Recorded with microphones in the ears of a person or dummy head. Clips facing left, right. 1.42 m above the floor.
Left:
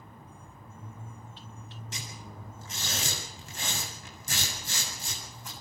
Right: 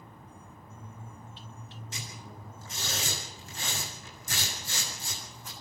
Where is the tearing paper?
65° left (ahead or behind), 8 m.